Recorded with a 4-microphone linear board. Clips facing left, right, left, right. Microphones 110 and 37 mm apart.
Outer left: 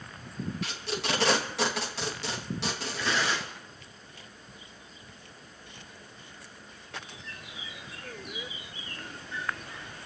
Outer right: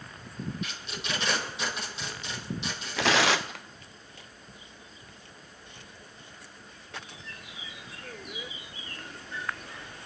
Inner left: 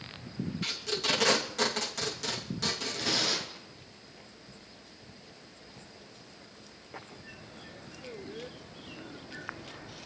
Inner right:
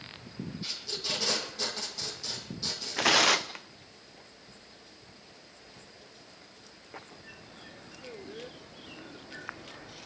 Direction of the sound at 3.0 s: 75° right (ahead or behind).